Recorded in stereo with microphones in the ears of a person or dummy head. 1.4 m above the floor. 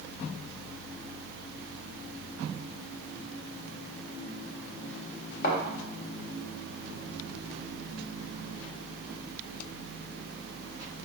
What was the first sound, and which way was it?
A thud, 50° left (ahead or behind).